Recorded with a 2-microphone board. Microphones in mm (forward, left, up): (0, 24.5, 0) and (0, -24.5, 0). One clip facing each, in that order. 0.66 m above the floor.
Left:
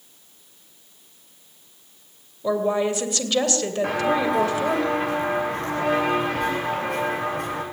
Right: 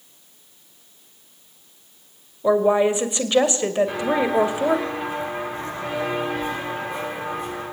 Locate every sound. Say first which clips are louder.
2.4 s a woman speaking: right 5 dB; 25° right (ahead or behind), 2.5 m
3.8 s footsteps: even; 70° left (ahead or behind), 9.5 m